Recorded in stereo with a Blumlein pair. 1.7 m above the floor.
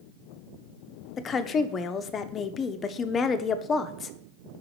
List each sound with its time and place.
1.2 s a woman speaking: 25° left, 0.6 m